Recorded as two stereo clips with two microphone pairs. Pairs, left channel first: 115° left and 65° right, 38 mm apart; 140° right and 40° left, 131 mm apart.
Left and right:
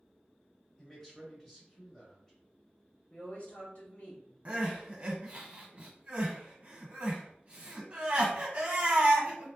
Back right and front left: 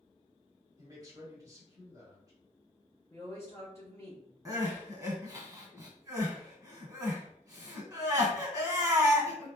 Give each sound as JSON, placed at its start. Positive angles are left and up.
{"t": 0.8, "sound": "a man speaking", "azimuth_deg": 55, "distance_m": 1.6}
{"t": 3.1, "sound": "a woman speaking", "azimuth_deg": 155, "distance_m": 1.9}
{"t": 4.5, "sound": "crying", "azimuth_deg": -20, "distance_m": 1.2}